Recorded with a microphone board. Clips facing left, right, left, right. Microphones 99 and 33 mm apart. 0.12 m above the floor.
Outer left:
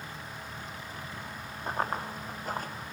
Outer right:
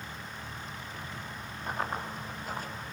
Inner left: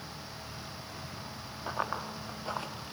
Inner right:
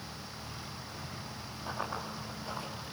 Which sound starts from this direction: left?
Running footsteps, at 1.7 s.